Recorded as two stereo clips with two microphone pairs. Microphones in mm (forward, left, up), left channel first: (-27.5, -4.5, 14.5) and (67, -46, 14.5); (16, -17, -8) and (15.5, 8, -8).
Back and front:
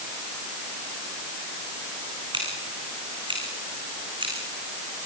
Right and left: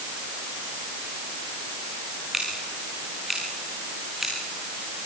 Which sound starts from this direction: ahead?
Scissors, at 2.3 s.